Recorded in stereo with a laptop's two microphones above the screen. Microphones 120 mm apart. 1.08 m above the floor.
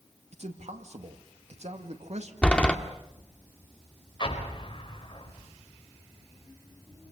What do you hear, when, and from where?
0.3 s a man speaking: 65° right (ahead or behind), 2 m
2.4 s a door slam: 10° left (ahead or behind), 1.8 m
4.2 s an explosion: 40° left (ahead or behind), 4.5 m